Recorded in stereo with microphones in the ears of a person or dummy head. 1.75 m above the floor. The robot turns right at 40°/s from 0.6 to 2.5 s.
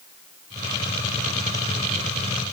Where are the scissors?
No scissors in this recording.